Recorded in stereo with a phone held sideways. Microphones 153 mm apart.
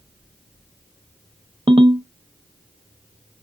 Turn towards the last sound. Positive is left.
turn(degrees=-35)  # may be behind; listen again after turning